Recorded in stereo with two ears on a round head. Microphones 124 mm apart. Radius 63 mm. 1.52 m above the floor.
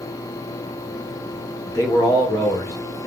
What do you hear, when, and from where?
1.7 s a man speaking: 25° left (ahead or behind), 1.0 m